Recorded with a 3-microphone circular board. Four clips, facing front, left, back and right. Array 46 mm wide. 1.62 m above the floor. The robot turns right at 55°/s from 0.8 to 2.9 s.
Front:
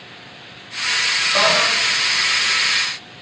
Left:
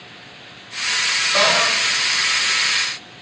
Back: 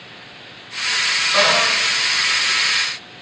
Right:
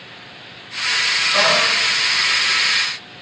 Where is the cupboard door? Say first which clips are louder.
Even, back 1 dB; 165° right, 1.4 m; by 1.8 s 145° right, 1.4 m.